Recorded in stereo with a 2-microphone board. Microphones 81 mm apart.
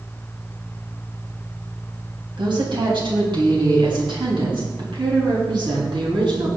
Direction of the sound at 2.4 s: 75° right (ahead or behind).